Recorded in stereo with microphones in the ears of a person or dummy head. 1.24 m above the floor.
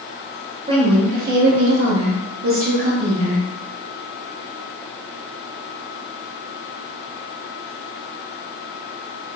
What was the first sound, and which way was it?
A woman speaking, 25° right (ahead or behind).